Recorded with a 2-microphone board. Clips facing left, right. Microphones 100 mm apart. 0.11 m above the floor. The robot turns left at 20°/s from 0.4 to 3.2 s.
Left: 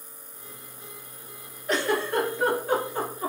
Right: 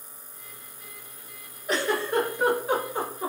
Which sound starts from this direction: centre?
A giggle, at 1.7 s.